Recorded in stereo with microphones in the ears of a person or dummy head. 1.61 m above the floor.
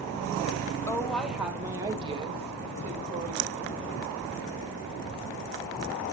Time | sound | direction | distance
0.9 | a woman speaking | 10° left (ahead or behind) | 1.1 m